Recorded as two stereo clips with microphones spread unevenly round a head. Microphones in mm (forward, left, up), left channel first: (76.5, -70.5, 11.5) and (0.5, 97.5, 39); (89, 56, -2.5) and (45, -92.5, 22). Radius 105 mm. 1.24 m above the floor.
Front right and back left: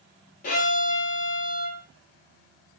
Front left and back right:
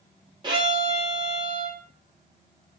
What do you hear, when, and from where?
0.4 s a violin: 100° right, 0.8 m